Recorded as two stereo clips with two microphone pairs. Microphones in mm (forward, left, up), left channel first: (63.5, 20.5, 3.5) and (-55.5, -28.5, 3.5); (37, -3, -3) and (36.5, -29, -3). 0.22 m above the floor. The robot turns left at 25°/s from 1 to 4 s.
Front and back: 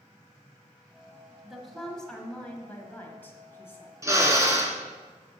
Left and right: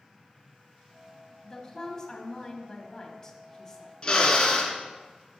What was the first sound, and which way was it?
A woman speaking, 115° left.